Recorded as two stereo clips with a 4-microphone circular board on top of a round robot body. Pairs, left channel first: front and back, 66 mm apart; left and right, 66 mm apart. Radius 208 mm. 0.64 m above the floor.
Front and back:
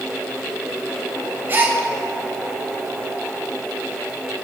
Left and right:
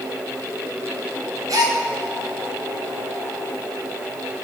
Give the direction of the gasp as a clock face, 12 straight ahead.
4 o'clock.